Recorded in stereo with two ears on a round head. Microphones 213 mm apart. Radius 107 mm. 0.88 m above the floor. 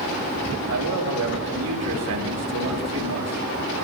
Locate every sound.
0.7 s a man speaking: 80° right, 5.5 m